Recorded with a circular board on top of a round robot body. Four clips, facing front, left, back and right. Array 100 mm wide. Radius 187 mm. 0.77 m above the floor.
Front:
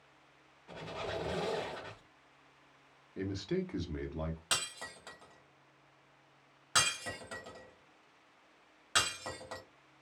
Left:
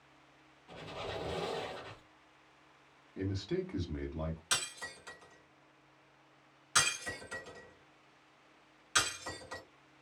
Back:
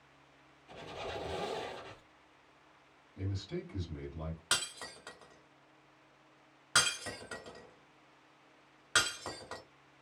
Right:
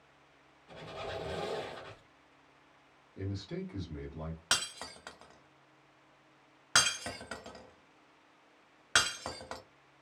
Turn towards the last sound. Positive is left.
turn(degrees=-95)